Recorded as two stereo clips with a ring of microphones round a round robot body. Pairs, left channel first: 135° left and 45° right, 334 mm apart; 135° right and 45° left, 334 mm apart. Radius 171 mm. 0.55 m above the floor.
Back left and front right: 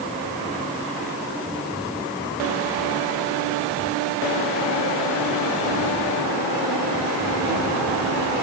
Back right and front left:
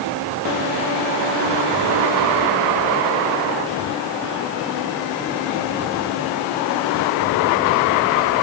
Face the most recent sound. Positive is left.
No sound to turn to.